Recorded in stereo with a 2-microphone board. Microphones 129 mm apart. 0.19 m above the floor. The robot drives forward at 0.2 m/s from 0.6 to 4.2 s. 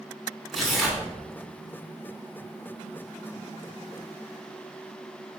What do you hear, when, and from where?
0.5 s tearing paper: centre (ahead or behind), 1.0 m